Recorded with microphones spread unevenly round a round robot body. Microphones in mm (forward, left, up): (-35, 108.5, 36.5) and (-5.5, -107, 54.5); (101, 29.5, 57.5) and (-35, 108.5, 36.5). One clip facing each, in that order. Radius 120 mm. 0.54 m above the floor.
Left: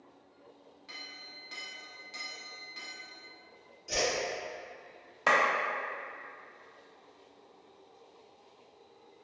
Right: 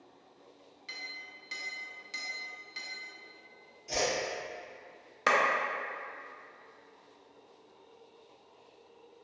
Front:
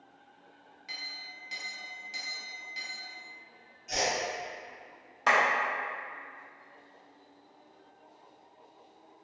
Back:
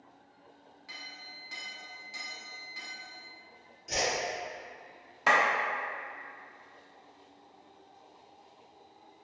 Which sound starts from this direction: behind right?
A clap, at 5.3 s.